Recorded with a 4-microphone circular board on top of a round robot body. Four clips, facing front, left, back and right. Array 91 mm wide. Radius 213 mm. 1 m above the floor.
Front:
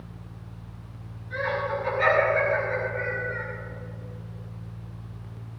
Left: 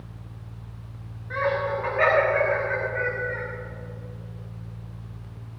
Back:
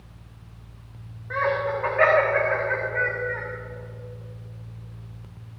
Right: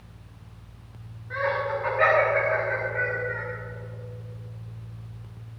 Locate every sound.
1.3 s laughter: 170° left, 6 m; by 3.4 s 175° left, 4.5 m